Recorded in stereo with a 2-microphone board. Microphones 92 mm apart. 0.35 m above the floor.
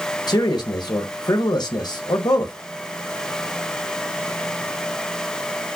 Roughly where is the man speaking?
Left.